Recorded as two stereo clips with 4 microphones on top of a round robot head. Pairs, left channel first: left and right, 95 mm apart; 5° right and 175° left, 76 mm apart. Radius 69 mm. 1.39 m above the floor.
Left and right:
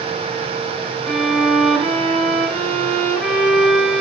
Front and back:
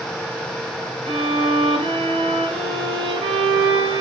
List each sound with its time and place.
1.1 s a violin: 170° left, 4.5 m